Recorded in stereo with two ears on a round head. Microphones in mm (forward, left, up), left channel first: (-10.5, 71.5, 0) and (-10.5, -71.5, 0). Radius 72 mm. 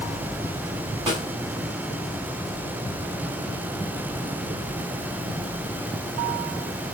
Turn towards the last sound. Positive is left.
turn(degrees=-25)  # may be behind; listen again after turning